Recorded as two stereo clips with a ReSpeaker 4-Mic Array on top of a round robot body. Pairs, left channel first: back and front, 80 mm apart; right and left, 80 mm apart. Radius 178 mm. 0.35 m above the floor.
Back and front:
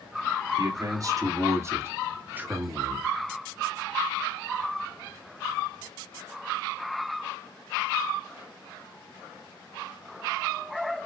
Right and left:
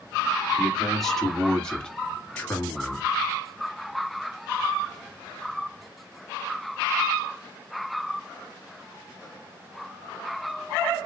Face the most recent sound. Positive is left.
turn(degrees=-75)